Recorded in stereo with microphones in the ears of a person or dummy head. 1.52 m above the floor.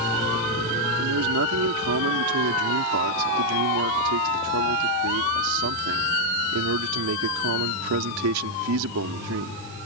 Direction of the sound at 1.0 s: 80° right.